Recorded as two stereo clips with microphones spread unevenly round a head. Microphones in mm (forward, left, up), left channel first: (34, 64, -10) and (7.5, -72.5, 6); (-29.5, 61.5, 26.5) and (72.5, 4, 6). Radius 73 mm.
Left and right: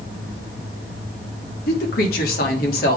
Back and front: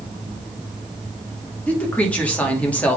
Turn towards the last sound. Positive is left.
turn(degrees=70)